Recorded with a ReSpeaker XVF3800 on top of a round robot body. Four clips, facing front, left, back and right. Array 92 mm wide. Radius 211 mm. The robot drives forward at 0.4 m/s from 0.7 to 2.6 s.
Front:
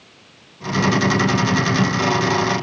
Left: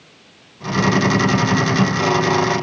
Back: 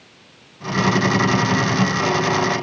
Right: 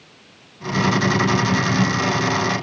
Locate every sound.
Only background noise.